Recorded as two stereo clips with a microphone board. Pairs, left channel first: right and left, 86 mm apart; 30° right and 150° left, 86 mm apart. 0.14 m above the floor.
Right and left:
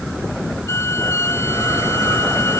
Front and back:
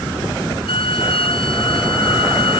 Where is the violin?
30° right.